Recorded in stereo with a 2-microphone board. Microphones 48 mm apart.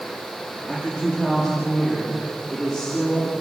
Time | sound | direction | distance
0.7 | a woman speaking | 15° right (ahead or behind) | 9.5 m